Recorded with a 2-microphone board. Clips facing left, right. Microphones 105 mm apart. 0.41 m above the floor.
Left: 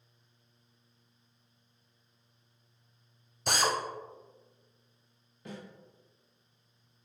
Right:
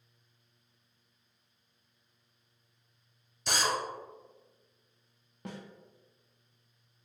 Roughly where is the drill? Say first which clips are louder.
Left 2 dB; left.